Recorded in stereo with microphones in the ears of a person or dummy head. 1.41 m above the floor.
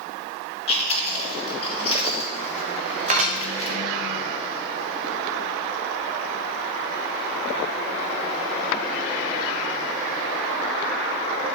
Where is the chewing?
35° left (ahead or behind), 2.5 m.